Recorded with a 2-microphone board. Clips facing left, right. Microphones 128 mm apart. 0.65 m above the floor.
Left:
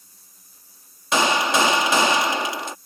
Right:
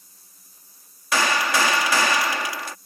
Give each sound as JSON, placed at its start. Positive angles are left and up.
{"t": 1.1, "sound": "a gunshot", "side_deg": 25}